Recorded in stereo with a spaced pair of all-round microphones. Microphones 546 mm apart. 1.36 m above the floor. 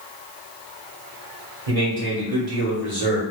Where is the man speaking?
85° right, 1.4 m.